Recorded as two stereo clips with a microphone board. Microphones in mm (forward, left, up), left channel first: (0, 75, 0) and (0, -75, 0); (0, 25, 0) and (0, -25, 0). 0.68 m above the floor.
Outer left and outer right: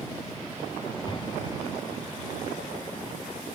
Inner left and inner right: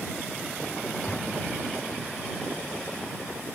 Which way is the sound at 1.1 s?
30° left (ahead or behind).